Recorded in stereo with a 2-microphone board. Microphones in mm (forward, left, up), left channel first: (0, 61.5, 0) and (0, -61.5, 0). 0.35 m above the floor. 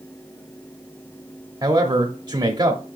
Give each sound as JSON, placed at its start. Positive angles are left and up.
{"t": 1.6, "sound": "a man speaking", "side_deg": -35, "distance_m": 1.1}